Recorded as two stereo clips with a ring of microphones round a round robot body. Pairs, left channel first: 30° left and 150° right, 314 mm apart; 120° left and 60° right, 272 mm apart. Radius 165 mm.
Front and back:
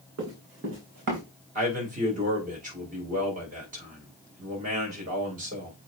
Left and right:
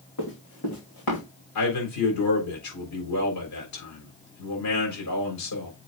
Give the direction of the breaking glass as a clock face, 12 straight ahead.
I don't hear breaking glass.